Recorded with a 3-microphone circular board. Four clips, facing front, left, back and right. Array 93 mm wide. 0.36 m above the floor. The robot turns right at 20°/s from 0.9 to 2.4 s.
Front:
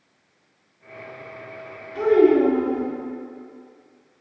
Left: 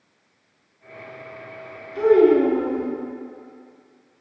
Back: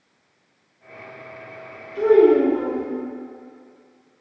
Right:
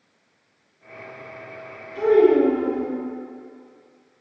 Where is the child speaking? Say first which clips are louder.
Left 1 dB, back 2 dB; 15° left, 1.5 m; by 2.9 s 25° left, 1.5 m.